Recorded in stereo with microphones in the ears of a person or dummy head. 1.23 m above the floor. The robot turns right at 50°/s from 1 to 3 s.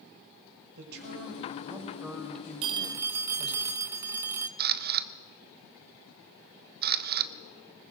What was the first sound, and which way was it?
A man speaking, 60° right.